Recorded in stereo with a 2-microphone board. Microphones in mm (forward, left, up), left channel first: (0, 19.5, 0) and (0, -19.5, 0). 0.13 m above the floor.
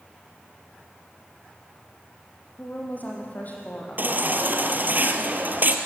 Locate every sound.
2.6 s a woman speaking: 45° left (ahead or behind), 6.5 m
4.0 s a baby crying: 50° right (ahead or behind), 1.9 m